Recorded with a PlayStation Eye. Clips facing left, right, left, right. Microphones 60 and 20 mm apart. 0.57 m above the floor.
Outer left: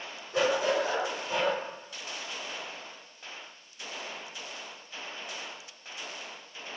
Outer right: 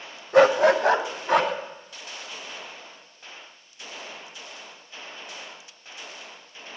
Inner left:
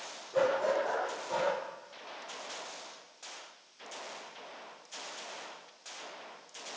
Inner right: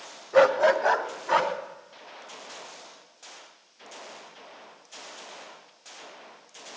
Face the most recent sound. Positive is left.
turn(degrees=-75)  # may be behind; listen again after turning